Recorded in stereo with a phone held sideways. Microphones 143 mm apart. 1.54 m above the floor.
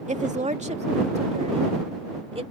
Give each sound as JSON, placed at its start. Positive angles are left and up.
{"t": 0.1, "sound": "a woman speaking", "side_deg": -60}